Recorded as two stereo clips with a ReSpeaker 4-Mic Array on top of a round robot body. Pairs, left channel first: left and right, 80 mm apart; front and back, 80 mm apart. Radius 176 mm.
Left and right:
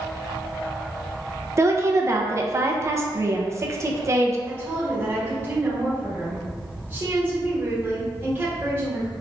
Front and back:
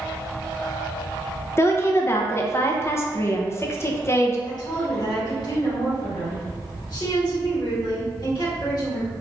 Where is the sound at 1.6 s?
45° right, 0.7 m.